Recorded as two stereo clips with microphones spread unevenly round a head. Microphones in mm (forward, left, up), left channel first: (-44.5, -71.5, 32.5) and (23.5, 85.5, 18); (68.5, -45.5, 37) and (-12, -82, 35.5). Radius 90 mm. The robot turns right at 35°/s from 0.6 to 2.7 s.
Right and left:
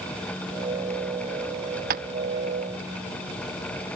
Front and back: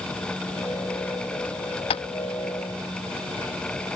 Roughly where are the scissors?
I don't hear scissors.